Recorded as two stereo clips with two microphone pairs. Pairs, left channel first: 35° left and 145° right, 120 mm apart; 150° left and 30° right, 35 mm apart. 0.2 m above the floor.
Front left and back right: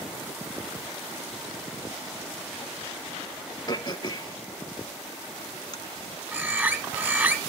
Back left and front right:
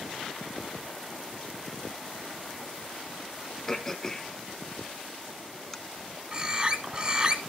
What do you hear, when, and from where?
3.7 s throat clearing: 75° left, 0.9 m
6.3 s a bird: 80° right, 1.4 m